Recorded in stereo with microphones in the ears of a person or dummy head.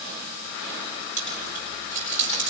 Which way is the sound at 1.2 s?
45° right (ahead or behind).